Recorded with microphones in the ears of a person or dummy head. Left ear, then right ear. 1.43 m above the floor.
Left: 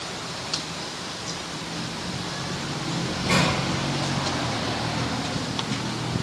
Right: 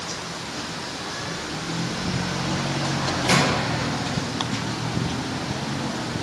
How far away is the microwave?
About 1.7 m.